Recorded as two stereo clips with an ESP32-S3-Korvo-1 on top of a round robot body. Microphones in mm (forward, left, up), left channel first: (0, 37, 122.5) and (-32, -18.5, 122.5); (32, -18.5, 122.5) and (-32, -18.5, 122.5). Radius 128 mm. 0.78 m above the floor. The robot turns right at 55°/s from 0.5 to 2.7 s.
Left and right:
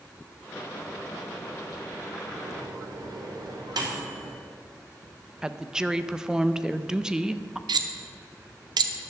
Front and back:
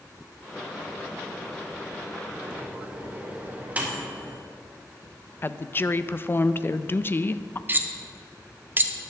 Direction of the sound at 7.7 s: 120° right.